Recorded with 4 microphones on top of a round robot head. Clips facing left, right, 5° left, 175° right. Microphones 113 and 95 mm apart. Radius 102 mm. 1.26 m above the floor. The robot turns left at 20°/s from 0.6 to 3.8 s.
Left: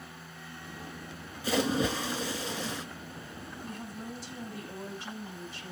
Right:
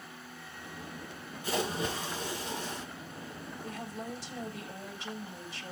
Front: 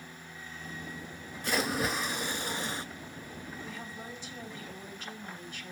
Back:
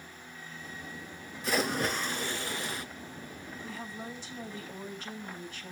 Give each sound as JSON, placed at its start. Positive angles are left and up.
{"t": 1.4, "sound": "a splash", "azimuth_deg": 95, "distance_m": 2.0}
{"t": 3.6, "sound": "a woman speaking", "azimuth_deg": -70, "distance_m": 4.0}